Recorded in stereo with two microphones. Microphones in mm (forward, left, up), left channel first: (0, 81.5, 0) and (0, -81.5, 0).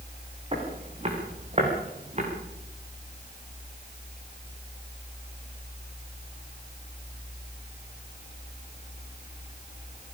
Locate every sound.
0.5 s footsteps: 35° right (ahead or behind), 8.5 m; by 2.3 s 45° right (ahead or behind), 9 m